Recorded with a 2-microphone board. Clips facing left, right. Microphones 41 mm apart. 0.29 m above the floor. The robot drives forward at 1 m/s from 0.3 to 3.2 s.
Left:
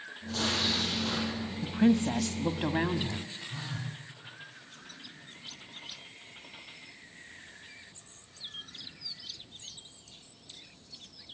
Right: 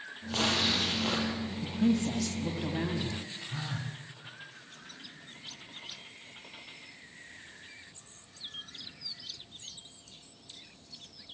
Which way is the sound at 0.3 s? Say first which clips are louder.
Right 2 dB; 55° right (ahead or behind).